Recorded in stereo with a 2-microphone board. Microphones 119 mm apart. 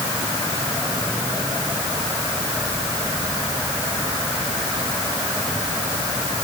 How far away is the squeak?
I don't hear a squeak.